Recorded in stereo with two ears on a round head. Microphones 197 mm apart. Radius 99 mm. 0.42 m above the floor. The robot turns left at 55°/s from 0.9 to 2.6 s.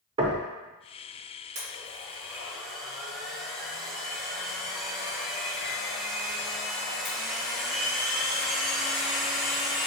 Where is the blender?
125° right, 1.3 m; by 9.9 s straight behind, 1.3 m.